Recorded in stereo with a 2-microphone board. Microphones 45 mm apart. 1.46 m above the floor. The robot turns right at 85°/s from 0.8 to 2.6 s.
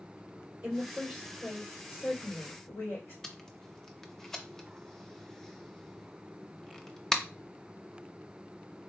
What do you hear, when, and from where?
0.6 s a woman speaking: 45° right, 2.5 m; by 3.1 s 105° left, 2.5 m
3.2 s tape being pulled: 10° left (ahead or behind), 0.6 m